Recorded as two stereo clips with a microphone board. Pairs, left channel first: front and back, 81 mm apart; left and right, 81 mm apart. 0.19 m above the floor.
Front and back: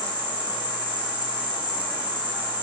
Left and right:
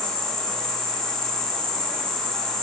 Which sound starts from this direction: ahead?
An insect, at 0.0 s.